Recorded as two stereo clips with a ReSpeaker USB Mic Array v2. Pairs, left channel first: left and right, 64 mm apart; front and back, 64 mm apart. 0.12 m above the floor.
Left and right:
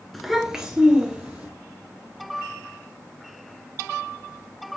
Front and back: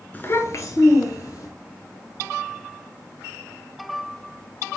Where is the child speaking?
5° left, 0.7 m; by 1.5 s 15° right, 2 m.